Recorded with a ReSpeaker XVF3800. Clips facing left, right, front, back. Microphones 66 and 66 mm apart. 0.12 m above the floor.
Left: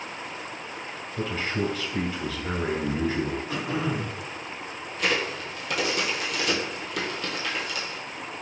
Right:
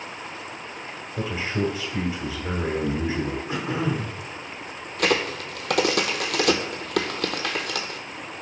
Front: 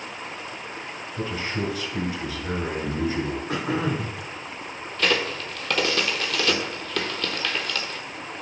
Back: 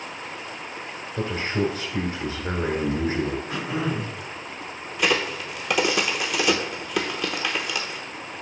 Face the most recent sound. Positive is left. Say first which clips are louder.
# right 4 dB, back 1 dB
turn(degrees=-105)